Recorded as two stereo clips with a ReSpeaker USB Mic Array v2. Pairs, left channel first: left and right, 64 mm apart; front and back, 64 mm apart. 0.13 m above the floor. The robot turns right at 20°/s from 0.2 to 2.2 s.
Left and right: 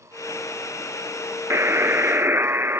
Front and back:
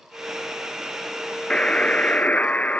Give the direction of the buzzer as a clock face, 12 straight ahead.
2 o'clock.